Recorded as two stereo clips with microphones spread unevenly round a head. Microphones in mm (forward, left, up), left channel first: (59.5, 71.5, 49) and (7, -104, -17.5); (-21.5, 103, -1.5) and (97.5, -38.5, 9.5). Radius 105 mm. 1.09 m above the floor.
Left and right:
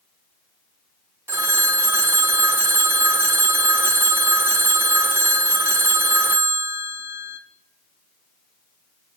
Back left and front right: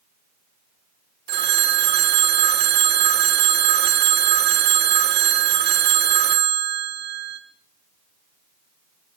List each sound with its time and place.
1.3 s a phone ringing: 25° right, 1.7 m